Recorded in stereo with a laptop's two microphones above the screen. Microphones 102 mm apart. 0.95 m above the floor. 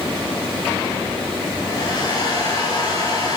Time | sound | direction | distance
1.6 | a hair dryer | 45° left (ahead or behind) | 7.5 m